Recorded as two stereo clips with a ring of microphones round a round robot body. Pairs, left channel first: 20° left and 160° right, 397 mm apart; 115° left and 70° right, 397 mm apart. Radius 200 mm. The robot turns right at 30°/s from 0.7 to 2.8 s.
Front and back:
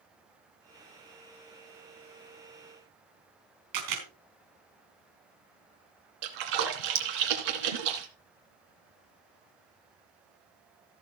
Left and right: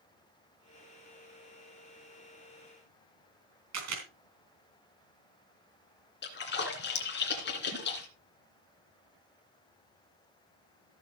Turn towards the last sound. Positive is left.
turn(degrees=175)